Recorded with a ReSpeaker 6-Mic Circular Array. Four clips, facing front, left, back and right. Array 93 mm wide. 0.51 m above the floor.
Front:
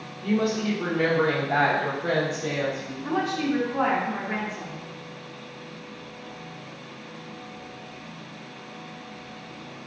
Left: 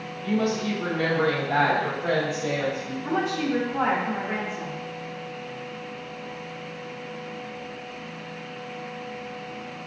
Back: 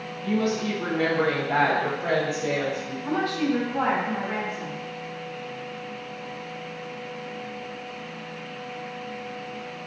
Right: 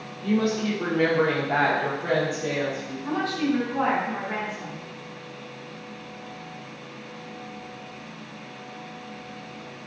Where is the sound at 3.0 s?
55° left, 0.9 m.